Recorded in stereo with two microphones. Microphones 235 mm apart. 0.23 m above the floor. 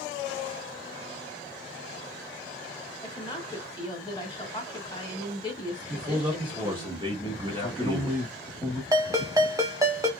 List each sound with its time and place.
3.0 s a woman speaking: 15° left (ahead or behind), 1.1 m
5.9 s a man speaking: 20° right (ahead or behind), 1.2 m
7.5 s a man speaking: 5° left (ahead or behind), 1.1 m
8.9 s a ringtone: 15° right (ahead or behind), 0.7 m